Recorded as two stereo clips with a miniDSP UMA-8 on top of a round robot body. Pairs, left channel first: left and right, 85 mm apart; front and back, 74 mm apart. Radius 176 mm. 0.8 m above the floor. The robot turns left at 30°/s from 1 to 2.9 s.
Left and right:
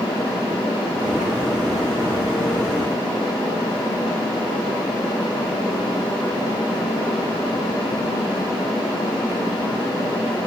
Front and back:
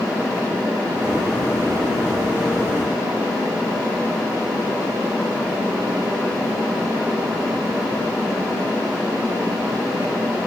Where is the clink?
No clink in this recording.